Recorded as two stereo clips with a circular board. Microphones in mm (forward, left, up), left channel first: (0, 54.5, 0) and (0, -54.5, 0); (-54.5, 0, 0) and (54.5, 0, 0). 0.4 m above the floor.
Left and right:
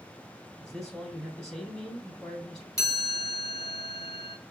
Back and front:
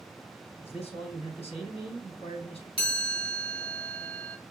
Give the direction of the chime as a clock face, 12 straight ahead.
7 o'clock.